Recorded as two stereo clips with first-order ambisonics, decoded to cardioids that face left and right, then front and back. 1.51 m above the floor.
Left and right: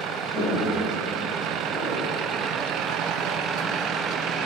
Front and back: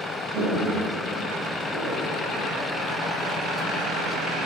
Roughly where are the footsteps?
Behind left.